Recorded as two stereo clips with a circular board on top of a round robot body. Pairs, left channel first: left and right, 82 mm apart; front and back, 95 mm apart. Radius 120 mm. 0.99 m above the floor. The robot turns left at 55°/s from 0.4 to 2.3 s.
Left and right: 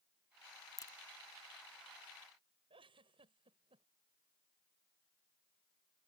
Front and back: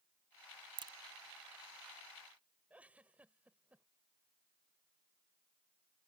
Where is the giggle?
105° right.